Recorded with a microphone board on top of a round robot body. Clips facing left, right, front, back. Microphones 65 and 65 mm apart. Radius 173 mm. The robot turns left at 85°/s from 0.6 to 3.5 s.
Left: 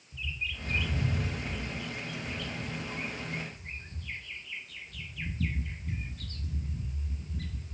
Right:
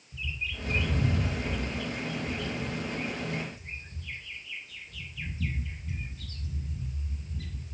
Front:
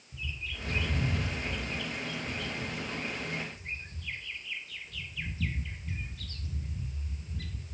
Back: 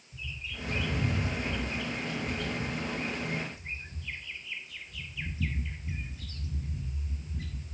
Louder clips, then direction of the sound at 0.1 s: Right 1 dB, front 1 dB; 5° right.